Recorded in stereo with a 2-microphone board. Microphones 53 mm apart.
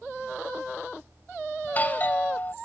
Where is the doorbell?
30° left (ahead or behind).